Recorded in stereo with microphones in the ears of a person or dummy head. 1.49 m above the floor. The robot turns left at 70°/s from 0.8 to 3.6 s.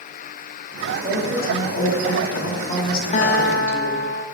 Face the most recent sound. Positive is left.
turn(degrees=120)